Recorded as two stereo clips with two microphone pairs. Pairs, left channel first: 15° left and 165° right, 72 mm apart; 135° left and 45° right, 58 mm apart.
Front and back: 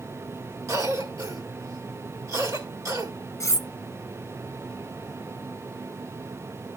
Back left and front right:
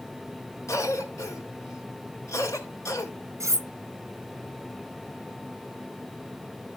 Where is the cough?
155° left, 2 m.